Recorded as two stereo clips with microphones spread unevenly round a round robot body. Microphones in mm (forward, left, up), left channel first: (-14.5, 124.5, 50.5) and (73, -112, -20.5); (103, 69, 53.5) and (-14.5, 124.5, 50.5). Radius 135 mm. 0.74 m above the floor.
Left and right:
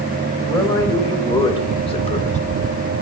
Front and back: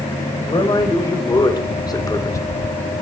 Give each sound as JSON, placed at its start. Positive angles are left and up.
{"t": 0.4, "sound": "a man speaking", "azimuth_deg": 30, "distance_m": 3.5}